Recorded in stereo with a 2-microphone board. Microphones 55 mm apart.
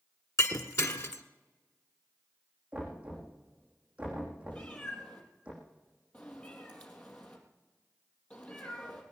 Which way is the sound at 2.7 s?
25° right (ahead or behind).